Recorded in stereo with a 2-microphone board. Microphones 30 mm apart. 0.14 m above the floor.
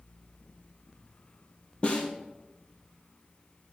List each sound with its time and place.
1.8 s a snare drum: 35° left (ahead or behind), 2.0 m